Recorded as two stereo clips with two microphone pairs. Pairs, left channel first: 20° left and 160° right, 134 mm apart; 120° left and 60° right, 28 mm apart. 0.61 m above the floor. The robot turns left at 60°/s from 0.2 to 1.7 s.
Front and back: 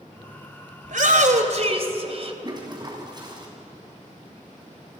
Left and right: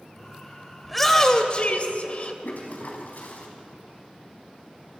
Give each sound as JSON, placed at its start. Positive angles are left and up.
{"t": 0.8, "sound": "a shout", "azimuth_deg": -150, "distance_m": 2.5}
{"t": 2.4, "sound": "a toilet flushing", "azimuth_deg": 140, "distance_m": 3.5}